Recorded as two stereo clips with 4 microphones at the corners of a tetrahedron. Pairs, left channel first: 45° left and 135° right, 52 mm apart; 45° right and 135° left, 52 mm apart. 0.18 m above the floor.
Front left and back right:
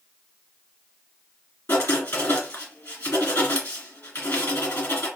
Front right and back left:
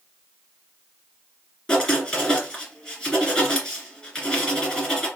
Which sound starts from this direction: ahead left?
Writing, at 1.7 s.